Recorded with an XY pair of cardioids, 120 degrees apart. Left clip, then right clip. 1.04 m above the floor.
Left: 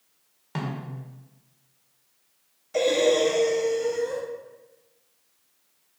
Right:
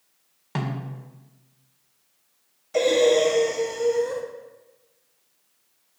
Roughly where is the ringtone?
No ringtone in this recording.